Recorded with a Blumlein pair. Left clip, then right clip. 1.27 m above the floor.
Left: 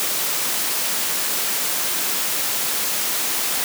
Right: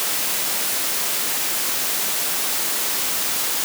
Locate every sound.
Only background noise.